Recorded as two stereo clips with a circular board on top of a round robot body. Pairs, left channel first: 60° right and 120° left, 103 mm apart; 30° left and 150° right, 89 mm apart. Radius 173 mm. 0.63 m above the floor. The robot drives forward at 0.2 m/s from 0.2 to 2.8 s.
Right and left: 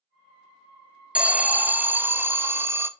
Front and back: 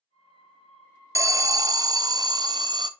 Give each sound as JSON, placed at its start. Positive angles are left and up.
{"t": 1.1, "sound": "an alarm", "azimuth_deg": -165, "distance_m": 0.5}